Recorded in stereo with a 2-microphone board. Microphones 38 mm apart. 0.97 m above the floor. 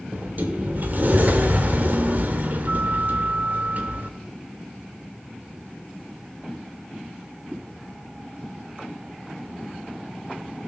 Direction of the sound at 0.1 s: 50° right (ahead or behind).